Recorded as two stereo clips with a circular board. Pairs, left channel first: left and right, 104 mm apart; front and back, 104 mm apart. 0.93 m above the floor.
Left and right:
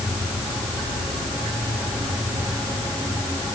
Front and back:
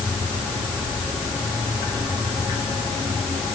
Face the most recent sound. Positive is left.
No sound to turn to.